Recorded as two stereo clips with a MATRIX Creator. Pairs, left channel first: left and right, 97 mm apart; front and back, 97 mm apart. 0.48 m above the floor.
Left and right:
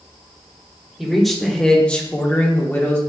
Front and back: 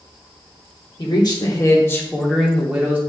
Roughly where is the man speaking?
Ahead.